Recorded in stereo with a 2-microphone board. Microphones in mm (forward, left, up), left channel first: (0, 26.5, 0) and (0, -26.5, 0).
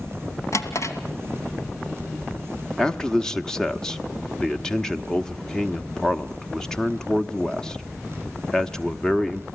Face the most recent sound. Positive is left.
turn(degrees=15)  # may be behind; listen again after turning